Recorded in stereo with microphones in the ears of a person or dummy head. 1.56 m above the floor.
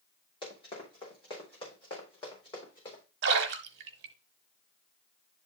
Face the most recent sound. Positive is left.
turn(degrees=-60)  # may be behind; listen again after turning